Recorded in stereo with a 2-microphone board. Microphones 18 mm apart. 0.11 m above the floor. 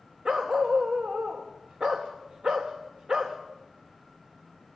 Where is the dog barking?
40° right (ahead or behind), 2.5 m.